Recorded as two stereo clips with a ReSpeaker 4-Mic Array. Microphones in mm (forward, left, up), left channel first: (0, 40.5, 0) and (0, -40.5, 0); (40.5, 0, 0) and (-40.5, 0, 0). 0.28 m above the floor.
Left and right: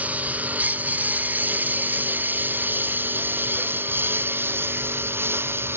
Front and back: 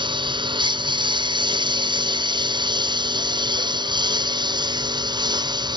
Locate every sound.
0.0 s a lawn mower: 160° right; by 5.8 s 150° right